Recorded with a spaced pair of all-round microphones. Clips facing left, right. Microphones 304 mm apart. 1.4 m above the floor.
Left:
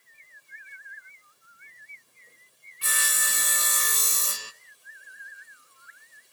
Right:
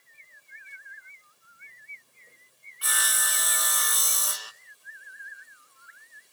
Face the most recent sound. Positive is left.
turn(degrees=30)  # may be behind; listen again after turning